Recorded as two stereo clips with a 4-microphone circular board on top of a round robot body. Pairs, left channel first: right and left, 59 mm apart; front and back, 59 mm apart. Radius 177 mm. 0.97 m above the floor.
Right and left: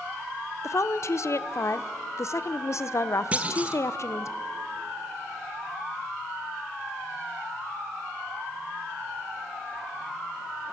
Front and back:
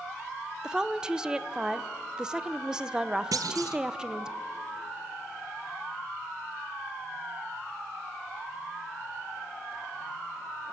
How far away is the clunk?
About 0.6 m.